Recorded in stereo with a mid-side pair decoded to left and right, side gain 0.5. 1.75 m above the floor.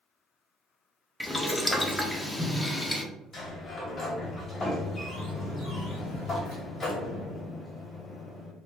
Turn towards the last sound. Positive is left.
turn(degrees=40)